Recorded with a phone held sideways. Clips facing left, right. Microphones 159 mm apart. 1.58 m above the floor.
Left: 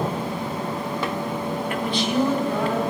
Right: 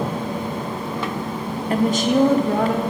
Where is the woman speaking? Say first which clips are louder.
Right 8 dB; 35° right (ahead or behind), 0.8 m; by 2.9 s 65° right (ahead or behind), 1.7 m.